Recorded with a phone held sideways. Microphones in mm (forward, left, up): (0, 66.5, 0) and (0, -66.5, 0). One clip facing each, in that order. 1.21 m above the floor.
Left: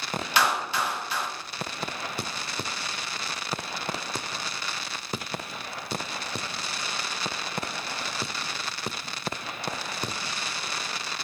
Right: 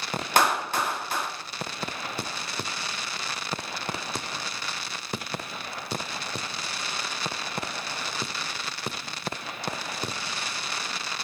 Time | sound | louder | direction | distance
0.4 | a clap | right 2 dB | 45° right (ahead or behind) | 1.9 m